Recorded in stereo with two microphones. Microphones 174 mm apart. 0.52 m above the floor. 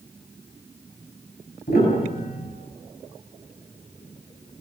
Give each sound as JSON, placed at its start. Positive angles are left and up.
{"t": 1.7, "sound": "a piano", "side_deg": 65, "distance_m": 7.5}